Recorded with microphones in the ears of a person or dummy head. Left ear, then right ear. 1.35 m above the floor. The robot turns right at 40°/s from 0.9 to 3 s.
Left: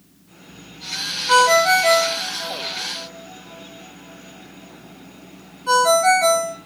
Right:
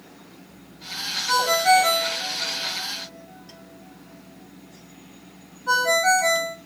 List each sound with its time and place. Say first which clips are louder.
1.3 s a ringtone: left 4 dB; 25° right (ahead or behind), 1.1 m; by 6.5 s 25° left (ahead or behind), 1.1 m